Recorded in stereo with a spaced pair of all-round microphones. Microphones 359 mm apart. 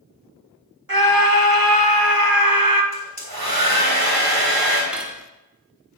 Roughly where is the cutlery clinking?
Centre.